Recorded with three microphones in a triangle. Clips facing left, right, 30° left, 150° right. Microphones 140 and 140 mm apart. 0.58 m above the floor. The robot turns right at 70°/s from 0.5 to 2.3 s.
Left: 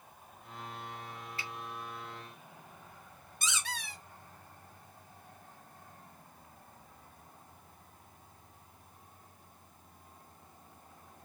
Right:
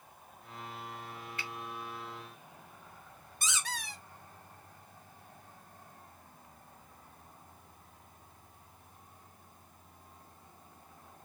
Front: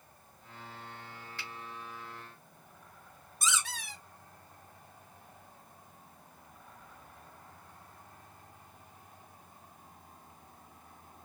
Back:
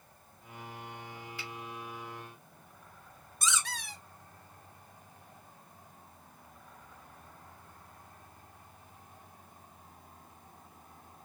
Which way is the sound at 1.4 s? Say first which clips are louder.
Right 1 dB, back 1 dB; 135° left.